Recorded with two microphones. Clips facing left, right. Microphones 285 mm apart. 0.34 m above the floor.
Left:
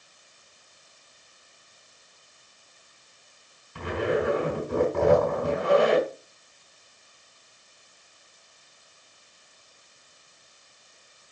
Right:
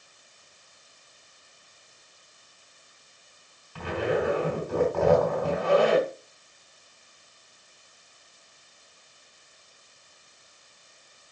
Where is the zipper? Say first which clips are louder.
Left 1 dB; 20° left (ahead or behind), 3.5 m.